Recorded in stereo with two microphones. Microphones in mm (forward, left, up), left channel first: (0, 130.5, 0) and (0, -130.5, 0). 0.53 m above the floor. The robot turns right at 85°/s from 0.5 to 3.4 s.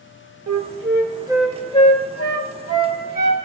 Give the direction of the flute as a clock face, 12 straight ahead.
3 o'clock.